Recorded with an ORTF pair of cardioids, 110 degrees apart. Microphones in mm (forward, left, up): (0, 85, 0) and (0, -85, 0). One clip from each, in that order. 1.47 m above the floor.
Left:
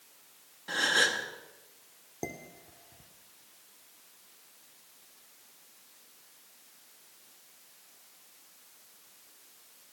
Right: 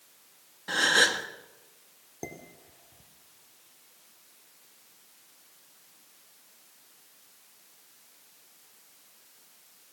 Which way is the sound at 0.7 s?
25° right.